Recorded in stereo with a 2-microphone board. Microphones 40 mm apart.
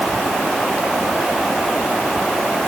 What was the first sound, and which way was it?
Only background noise.